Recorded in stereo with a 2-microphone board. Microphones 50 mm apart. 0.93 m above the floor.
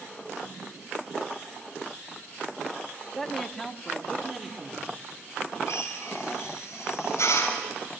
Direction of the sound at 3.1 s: 5° left (ahead or behind).